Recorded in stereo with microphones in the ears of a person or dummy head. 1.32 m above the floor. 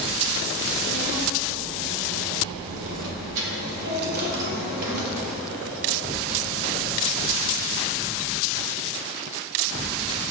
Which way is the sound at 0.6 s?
80° right.